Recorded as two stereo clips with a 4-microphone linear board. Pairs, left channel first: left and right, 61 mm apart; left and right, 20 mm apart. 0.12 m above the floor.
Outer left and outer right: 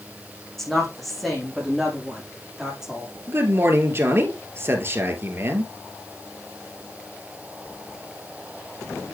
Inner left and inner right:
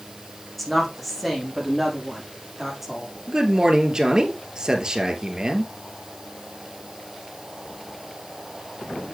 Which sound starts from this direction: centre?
A woman speaking, at 0.6 s.